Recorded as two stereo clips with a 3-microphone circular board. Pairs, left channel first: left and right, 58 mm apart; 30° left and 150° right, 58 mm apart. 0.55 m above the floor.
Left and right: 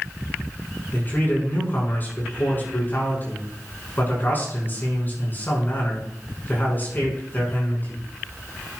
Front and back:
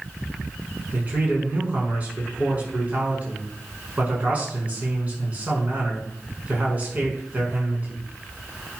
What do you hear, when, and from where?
0.9 s a man speaking: 150° left, 6 m